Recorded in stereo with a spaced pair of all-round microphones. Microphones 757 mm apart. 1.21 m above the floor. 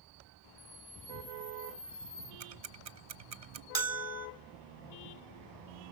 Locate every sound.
0.6 s a camera shutter: 5° left (ahead or behind), 2 m
2.4 s ticking: 55° right (ahead or behind), 0.6 m
3.8 s a bell: 45° right (ahead or behind), 0.9 m